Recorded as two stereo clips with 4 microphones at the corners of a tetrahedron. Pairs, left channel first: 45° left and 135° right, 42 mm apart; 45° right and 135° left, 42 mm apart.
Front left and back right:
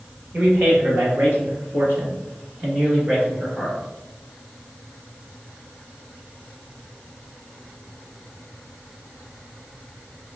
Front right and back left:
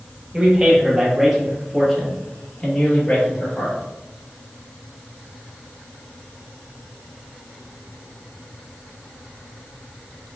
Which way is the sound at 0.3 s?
160° right.